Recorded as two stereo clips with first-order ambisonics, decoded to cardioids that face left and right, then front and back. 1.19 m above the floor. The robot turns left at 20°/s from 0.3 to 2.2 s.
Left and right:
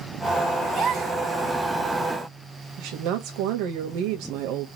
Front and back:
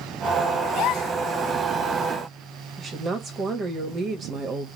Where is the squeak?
No squeak in this recording.